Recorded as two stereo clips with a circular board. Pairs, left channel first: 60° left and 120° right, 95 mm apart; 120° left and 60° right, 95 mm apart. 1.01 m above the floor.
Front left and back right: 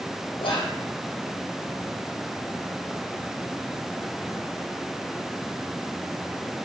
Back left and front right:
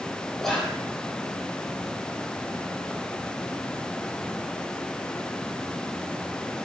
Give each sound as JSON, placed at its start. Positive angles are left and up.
{"t": 0.4, "sound": "whispering", "azimuth_deg": 35, "distance_m": 0.7}